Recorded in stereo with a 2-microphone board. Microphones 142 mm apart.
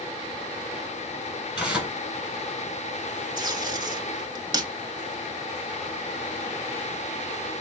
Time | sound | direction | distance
1.6 | tearing paper | 10° right (ahead or behind) | 1.3 m
3.4 | tape being pulled | 35° right (ahead or behind) | 0.6 m